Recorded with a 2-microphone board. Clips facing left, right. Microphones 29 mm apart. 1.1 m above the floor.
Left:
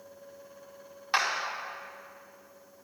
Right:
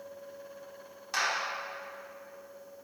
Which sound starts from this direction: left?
A clap, at 1.1 s.